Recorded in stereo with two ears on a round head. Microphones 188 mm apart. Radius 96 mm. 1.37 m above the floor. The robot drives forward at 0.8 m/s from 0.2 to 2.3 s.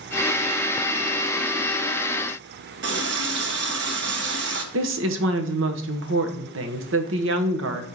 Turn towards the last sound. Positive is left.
turn(degrees=-60)  # may be behind; listen again after turning